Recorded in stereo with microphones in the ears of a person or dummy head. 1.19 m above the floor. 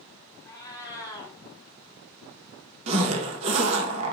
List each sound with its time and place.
0.5 s a cat meowing: 20° left (ahead or behind), 1.6 m
2.9 s a zipper: 25° right (ahead or behind), 1.0 m